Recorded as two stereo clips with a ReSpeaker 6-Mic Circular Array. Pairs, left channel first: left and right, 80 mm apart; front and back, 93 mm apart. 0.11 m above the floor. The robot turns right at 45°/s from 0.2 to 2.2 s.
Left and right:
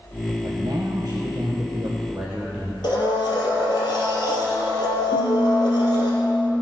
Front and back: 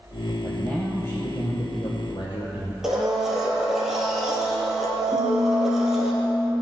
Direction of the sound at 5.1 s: 115° left.